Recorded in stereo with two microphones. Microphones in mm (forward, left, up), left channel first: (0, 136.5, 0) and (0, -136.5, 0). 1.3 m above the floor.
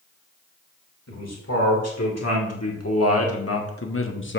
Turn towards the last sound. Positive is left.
turn(degrees=45)  # may be behind; listen again after turning